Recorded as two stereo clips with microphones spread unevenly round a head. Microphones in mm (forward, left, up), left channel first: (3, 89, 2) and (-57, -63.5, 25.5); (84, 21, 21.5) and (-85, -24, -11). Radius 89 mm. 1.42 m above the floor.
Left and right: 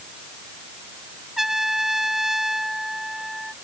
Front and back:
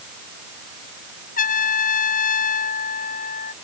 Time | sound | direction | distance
1.4 | a trumpet | 25° right | ?